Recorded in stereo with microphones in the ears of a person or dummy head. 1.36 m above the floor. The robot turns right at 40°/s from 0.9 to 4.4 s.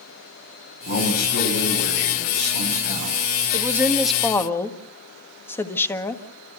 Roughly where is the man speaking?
Ahead left.